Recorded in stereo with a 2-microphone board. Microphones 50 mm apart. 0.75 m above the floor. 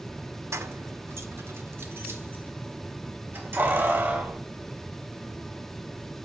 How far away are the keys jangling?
About 0.9 m.